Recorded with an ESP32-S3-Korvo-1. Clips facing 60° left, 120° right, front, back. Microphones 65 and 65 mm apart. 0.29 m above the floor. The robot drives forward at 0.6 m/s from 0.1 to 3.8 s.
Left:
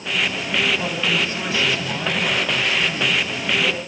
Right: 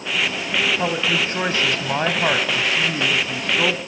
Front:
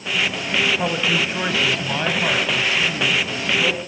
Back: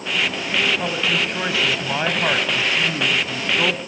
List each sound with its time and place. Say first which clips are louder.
0.8 s a woman speaking: right 1 dB, front 1 dB; 75° right, 1.6 m; by 3.8 s 140° right, 2 m